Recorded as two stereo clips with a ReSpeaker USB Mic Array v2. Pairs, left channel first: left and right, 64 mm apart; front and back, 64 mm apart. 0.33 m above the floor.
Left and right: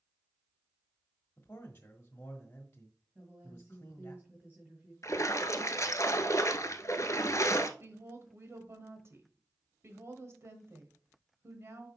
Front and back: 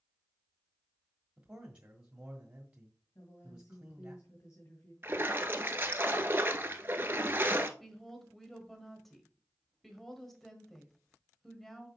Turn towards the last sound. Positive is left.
turn(degrees=-85)